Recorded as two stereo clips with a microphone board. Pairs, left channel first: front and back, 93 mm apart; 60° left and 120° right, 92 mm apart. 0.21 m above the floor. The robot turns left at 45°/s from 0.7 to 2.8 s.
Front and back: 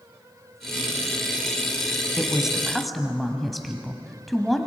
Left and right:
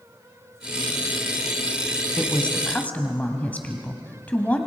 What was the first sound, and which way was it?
A woman speaking, 120° left.